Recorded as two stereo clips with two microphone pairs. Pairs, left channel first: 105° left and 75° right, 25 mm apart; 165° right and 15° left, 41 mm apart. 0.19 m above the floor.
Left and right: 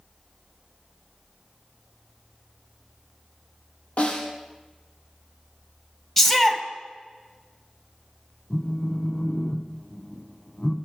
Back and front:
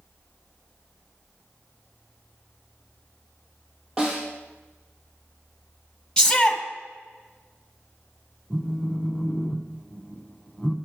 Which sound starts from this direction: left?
A snare drum, at 4.0 s.